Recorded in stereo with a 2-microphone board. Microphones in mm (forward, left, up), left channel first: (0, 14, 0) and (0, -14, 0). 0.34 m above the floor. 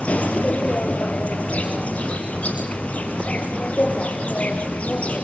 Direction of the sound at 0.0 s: 50° left (ahead or behind).